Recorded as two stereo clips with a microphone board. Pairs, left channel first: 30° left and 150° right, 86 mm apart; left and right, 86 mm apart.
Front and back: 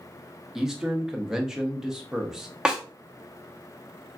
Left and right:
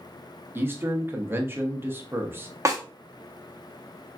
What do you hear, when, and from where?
0.6 s a man speaking: 75° right, 0.6 m
2.6 s a snare drum: 75° right, 0.7 m